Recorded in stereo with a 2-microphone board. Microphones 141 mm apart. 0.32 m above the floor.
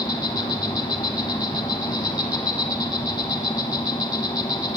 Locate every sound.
0.0 s an insect: 25° left (ahead or behind), 1.2 m